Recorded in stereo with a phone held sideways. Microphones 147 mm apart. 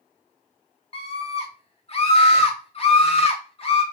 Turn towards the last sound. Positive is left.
turn(degrees=40)  # may be behind; listen again after turning